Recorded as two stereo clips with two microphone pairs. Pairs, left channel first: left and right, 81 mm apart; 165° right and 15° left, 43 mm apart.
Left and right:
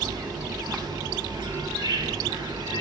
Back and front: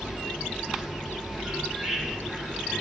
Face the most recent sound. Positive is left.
turn(degrees=-65)